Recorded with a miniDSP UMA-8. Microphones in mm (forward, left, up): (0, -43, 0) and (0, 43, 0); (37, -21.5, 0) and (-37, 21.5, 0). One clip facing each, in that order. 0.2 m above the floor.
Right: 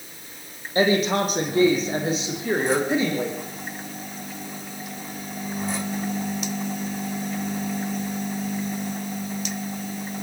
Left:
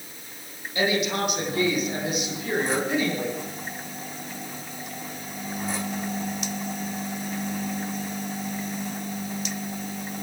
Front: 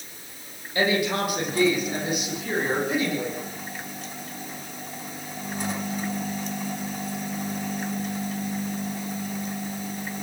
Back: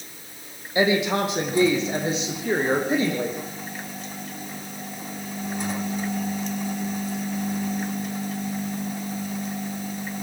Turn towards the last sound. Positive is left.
turn(degrees=-155)